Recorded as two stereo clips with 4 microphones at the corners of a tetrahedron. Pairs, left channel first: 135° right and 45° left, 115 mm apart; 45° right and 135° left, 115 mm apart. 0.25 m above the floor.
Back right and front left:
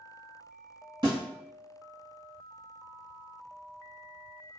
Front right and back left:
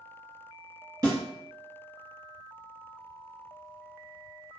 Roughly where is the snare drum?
Left.